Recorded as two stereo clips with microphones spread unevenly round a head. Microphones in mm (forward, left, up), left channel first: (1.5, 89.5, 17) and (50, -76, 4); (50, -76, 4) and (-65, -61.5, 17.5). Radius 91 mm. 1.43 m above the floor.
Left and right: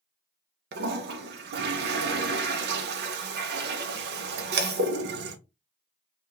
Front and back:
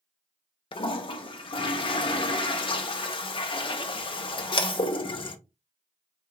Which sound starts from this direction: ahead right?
A toilet flushing, at 0.7 s.